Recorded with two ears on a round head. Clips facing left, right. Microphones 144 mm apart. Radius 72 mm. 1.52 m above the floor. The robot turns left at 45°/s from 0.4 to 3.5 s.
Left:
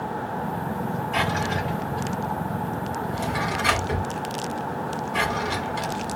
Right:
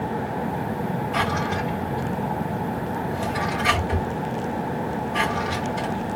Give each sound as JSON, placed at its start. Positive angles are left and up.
{"t": 1.1, "sound": "a drawer", "side_deg": 20, "distance_m": 2.5}